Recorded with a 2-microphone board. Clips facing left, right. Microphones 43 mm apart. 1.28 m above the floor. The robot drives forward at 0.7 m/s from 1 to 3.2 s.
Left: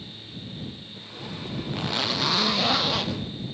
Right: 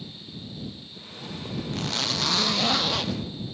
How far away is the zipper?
About 0.5 m.